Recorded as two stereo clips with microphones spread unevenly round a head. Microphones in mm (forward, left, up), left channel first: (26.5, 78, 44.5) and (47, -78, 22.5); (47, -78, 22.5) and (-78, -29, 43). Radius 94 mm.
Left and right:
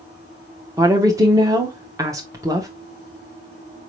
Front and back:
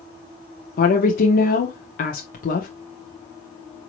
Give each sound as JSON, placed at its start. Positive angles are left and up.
{"t": 0.8, "sound": "a woman speaking", "azimuth_deg": -15, "distance_m": 0.8}